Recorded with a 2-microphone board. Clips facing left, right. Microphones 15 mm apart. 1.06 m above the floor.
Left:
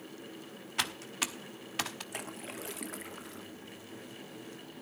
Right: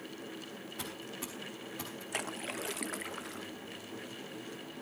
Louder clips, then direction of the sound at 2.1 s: Right 4 dB; 20° right (ahead or behind).